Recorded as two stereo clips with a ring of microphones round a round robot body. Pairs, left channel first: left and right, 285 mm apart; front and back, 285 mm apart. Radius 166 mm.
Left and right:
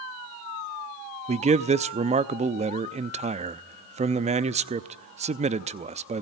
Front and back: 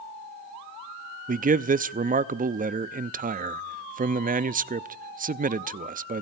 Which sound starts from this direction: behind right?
A man speaking, at 1.3 s.